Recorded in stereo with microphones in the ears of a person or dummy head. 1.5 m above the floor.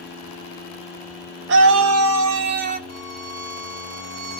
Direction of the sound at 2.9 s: 70° right (ahead or behind).